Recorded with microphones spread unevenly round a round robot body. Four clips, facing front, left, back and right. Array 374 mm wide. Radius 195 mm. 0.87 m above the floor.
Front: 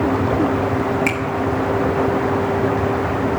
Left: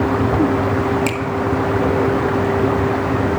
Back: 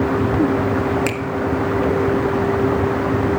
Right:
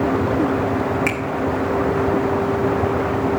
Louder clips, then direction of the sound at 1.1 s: Left 2 dB, front 1 dB; 165° left.